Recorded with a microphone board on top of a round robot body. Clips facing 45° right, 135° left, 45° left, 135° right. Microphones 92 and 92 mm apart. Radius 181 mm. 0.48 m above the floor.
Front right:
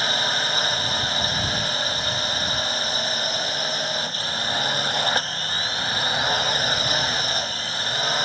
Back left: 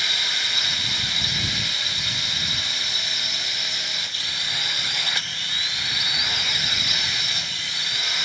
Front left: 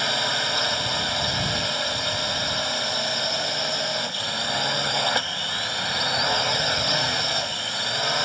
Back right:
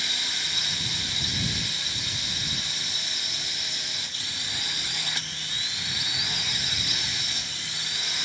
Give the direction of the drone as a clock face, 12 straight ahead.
12 o'clock.